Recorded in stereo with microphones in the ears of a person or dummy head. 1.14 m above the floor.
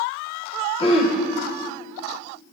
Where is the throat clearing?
30° left (ahead or behind), 0.6 m.